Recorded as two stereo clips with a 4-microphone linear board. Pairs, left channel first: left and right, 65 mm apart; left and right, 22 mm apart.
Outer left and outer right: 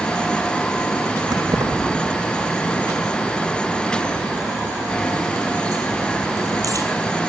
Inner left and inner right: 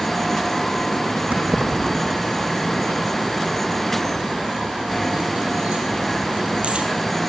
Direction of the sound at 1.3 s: 75° right (ahead or behind).